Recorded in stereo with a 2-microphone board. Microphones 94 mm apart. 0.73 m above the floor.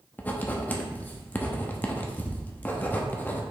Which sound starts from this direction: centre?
Writing, at 0.2 s.